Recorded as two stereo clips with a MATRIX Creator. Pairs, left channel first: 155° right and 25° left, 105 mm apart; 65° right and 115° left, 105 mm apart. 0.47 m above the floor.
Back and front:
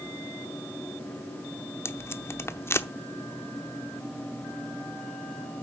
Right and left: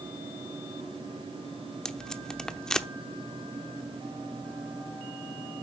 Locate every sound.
1.9 s tape being pulled: 140° right, 0.8 m